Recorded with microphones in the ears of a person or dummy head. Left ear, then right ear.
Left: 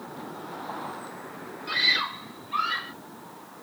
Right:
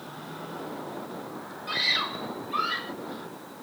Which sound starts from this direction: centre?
A scream, at 1.7 s.